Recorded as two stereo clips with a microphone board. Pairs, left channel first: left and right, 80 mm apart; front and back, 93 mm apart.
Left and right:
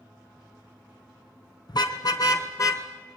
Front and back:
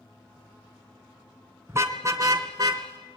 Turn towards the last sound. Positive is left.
turn(degrees=135)